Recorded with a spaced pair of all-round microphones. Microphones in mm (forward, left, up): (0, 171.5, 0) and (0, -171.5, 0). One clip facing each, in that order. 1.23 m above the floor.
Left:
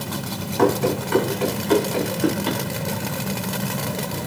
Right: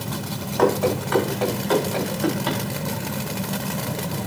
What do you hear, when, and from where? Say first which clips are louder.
0.6 s running footsteps: left 1 dB; 35° left (ahead or behind), 5 m